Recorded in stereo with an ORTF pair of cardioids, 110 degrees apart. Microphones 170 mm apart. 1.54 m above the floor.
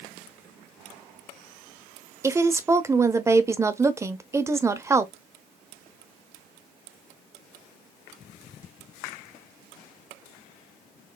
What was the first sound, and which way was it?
A woman speaking, 15° right.